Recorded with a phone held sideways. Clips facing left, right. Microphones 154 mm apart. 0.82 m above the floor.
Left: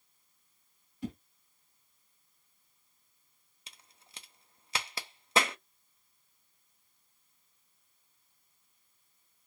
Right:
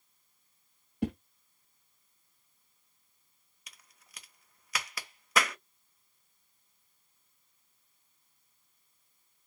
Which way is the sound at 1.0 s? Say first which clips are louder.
Right 6 dB; 80° right.